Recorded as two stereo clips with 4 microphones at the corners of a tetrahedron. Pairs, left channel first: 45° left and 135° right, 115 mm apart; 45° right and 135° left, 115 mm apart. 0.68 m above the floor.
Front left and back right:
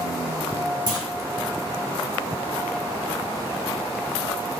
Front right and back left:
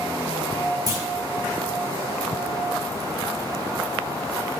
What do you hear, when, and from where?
0.9 s a clunk: 175° right, 0.8 m